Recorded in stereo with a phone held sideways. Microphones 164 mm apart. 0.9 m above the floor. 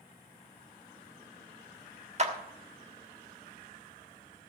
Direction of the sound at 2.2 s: 40° right (ahead or behind).